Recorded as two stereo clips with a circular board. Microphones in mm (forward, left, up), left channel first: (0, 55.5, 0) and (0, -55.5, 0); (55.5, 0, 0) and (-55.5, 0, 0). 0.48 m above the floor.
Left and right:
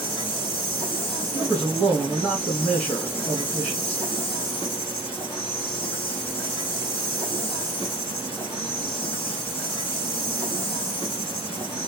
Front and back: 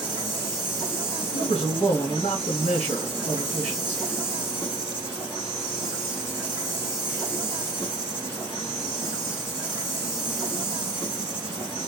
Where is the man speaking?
10° left, 2.5 m.